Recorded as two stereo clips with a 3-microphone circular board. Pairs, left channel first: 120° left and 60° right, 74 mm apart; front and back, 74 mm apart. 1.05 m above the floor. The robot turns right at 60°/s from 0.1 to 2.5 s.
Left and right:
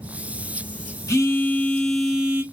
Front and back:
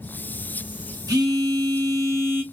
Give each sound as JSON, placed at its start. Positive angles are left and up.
{"t": 1.1, "sound": "a phone buzzing", "azimuth_deg": 155, "distance_m": 0.7}